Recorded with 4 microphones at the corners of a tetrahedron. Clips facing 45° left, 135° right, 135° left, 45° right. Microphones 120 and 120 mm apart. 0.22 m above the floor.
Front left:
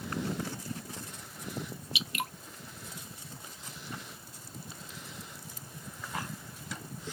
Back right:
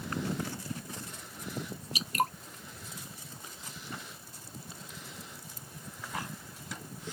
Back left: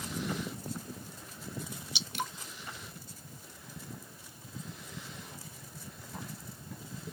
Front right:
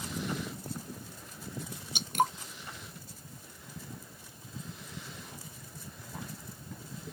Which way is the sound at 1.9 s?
85° right.